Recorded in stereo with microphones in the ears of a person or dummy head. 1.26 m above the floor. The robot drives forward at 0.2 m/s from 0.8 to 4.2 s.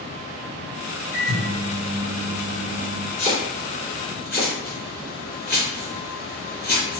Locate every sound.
1.1 s a microwave: 50° right (ahead or behind), 0.9 m; by 3.1 s 70° right (ahead or behind), 0.8 m
3.2 s chopping: 35° left (ahead or behind), 1.8 m; by 7.0 s 30° left (ahead or behind), 1.9 m